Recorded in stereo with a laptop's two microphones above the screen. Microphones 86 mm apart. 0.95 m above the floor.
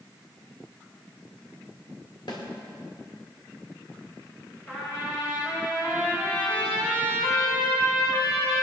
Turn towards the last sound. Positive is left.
turn(degrees=15)  # may be behind; listen again after turning